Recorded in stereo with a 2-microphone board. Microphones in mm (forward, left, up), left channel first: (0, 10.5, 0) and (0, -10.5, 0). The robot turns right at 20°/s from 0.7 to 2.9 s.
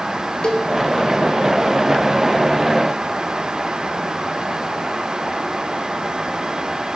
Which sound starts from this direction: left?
A cowbell, at 0.4 s.